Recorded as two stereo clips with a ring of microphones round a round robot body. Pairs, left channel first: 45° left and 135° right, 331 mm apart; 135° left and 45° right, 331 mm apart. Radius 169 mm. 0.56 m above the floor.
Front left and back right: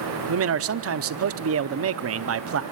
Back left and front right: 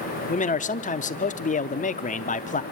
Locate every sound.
0.3 s a man speaking: 165° right, 0.8 m